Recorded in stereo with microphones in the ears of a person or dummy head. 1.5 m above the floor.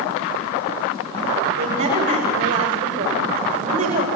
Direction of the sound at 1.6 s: 75° right (ahead or behind).